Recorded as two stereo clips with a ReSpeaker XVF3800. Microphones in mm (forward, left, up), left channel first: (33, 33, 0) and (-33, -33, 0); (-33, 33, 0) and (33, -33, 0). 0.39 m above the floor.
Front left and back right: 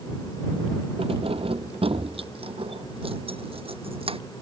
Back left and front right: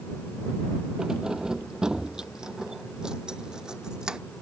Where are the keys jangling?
130° right; by 4.2 s 125° right.